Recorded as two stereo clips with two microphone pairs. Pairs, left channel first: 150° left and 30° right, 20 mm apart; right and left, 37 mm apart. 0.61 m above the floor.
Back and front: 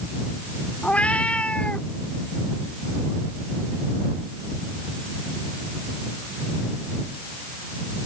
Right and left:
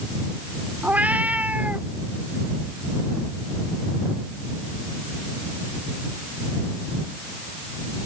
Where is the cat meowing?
140° left.